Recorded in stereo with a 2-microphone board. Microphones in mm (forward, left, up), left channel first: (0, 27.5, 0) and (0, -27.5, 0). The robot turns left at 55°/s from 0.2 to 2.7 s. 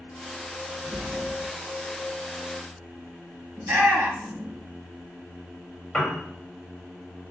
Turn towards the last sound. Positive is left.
turn(degrees=10)  # may be behind; listen again after turning